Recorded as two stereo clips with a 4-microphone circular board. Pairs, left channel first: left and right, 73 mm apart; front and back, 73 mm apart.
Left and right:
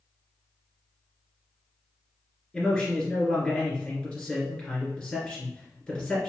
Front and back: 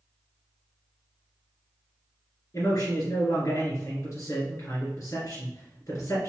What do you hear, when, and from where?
2.5 s a man speaking: 5° left, 2.0 m